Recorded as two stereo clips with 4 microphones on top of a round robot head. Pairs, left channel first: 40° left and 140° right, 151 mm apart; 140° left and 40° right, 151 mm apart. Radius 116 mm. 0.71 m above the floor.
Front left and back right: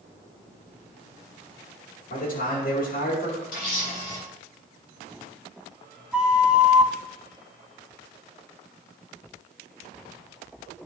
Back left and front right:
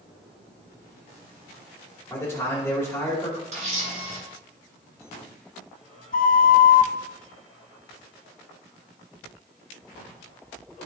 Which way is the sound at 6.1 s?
135° left.